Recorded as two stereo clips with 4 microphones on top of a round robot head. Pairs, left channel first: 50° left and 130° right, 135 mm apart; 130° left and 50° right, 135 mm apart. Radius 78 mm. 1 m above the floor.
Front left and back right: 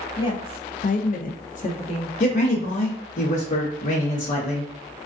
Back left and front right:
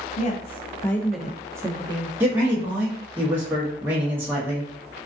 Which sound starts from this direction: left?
A woman speaking, at 0.2 s.